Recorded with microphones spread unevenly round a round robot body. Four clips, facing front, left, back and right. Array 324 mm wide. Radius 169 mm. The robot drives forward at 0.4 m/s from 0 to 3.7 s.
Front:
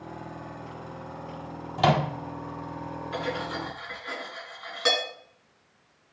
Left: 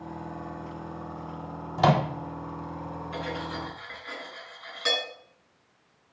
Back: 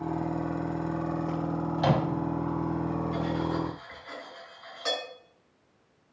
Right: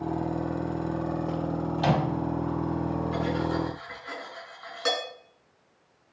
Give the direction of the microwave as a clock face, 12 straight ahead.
10 o'clock.